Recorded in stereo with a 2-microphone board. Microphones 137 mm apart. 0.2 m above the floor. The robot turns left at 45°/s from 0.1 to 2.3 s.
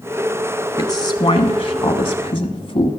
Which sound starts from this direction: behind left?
A woman speaking, at 0.8 s.